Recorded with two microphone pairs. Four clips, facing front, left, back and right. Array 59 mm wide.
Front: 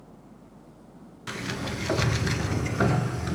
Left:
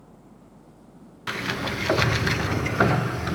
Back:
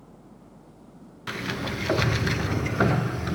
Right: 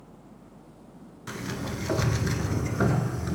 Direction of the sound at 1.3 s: 100° left.